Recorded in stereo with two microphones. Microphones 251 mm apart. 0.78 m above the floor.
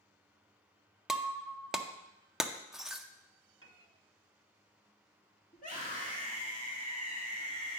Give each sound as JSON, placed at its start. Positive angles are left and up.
{"t": 1.1, "sound": "breaking glass", "side_deg": 0, "distance_m": 0.5}
{"t": 3.6, "sound": "a piano", "side_deg": -60, "distance_m": 1.0}
{"t": 5.5, "sound": "a scream", "side_deg": 30, "distance_m": 1.5}